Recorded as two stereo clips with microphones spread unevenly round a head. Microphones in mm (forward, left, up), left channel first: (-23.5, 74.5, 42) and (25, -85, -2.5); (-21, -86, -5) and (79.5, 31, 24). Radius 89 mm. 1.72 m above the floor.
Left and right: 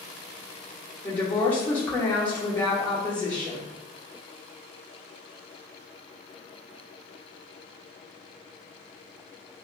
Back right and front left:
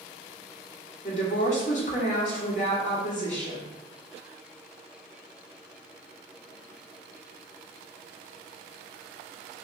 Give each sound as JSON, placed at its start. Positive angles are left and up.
{"t": 1.0, "sound": "a woman speaking", "azimuth_deg": 180, "distance_m": 1.0}